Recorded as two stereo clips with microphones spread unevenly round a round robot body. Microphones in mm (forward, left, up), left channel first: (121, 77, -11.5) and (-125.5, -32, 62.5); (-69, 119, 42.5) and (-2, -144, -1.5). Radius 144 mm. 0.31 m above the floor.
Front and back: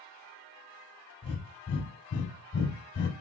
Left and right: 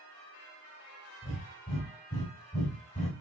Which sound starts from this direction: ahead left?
Breathing, at 1.2 s.